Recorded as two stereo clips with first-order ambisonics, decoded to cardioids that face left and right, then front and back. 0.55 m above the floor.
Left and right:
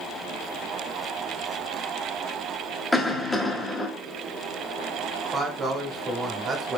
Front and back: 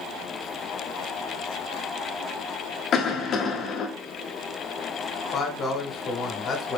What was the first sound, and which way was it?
A cough, 5° left.